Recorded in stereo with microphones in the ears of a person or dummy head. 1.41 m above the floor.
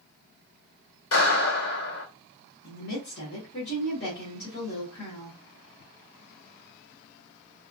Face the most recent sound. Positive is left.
turn(degrees=65)  # may be behind; listen again after turning